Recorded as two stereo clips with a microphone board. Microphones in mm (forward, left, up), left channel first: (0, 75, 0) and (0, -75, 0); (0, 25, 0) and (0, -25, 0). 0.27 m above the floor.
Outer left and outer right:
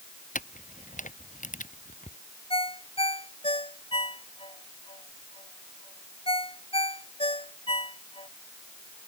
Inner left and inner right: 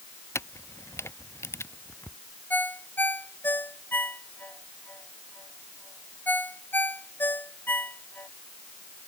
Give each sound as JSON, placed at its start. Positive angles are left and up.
{"t": 0.3, "sound": "a camera shutter", "side_deg": 60}
{"t": 2.5, "sound": "a ringtone", "side_deg": 40}